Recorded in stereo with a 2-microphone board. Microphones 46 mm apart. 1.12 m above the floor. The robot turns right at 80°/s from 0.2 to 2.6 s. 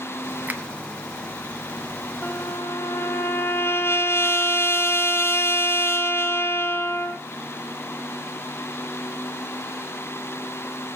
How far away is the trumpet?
About 1.9 m.